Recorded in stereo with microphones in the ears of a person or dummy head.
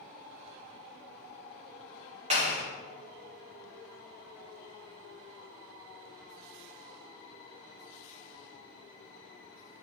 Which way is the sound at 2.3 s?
35° right (ahead or behind).